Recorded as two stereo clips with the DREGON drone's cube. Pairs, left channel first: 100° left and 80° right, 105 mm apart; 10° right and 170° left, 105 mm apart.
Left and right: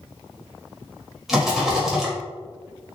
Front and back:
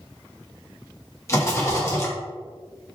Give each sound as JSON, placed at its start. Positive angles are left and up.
{"t": 1.3, "sound": "a rattle", "azimuth_deg": 5, "distance_m": 1.5}